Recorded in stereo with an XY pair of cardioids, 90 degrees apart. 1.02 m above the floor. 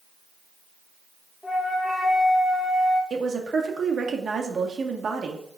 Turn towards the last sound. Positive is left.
turn(degrees=-45)